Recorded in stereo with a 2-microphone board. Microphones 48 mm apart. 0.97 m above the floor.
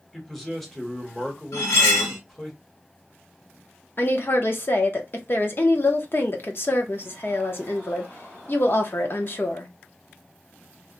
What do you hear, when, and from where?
0.1 s a man speaking: 5° left (ahead or behind), 1.0 m
1.5 s cutlery clinking: 75° left (ahead or behind), 1.0 m
4.0 s a woman speaking: 50° left (ahead or behind), 0.7 m